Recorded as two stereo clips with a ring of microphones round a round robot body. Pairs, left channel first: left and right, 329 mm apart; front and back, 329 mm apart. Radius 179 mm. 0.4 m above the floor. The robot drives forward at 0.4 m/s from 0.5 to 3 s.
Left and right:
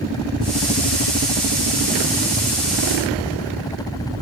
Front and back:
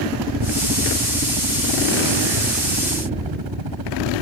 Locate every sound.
0.0 s a helicopter: 165° left; by 4.2 s 170° left